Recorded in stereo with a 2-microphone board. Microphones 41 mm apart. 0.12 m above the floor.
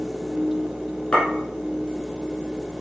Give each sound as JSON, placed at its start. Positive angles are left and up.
{"t": 1.1, "sound": "a clink", "side_deg": 30, "distance_m": 3.5}